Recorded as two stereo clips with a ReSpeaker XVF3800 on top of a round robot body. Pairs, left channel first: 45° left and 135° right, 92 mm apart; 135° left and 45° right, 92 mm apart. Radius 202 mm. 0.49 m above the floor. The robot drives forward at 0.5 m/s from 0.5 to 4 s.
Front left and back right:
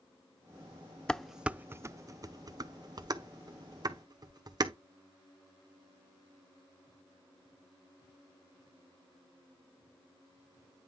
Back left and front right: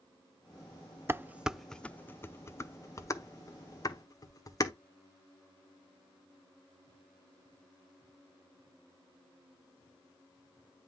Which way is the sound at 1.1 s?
25° right.